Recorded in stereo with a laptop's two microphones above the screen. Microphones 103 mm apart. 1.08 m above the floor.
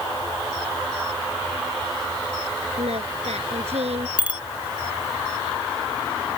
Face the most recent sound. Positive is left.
turn(degrees=-10)  # may be behind; listen again after turning